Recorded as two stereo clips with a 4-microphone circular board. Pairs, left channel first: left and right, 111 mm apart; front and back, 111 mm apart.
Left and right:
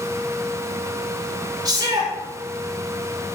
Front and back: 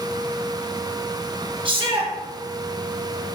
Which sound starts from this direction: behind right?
A shout, at 1.6 s.